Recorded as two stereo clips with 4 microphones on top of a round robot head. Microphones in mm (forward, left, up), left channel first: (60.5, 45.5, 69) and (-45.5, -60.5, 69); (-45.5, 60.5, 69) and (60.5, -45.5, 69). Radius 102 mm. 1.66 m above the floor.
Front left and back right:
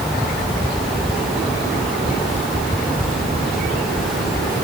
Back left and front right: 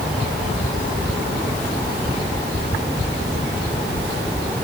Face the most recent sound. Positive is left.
No sound to turn to.